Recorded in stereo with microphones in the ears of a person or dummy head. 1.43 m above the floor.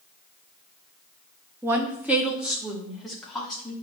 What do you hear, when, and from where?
1.6 s a woman speaking: 20° right (ahead or behind), 1.6 m; by 3.7 s centre (ahead or behind), 3 m